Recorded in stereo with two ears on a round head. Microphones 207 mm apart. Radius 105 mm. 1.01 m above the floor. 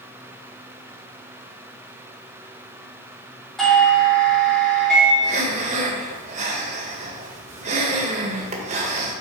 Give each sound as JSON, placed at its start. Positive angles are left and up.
{"t": 3.6, "sound": "a doorbell", "side_deg": 0, "distance_m": 3.5}
{"t": 5.2, "sound": "breathing", "side_deg": -30, "distance_m": 1.9}